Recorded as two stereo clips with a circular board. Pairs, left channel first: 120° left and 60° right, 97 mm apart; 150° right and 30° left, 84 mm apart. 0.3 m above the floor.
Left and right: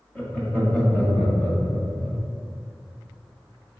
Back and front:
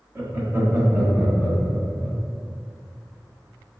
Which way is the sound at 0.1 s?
45° left.